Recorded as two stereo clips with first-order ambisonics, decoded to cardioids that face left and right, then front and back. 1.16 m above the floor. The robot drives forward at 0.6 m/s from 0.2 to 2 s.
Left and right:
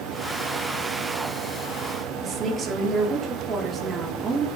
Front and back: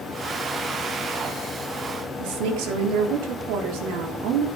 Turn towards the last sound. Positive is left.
turn(degrees=-160)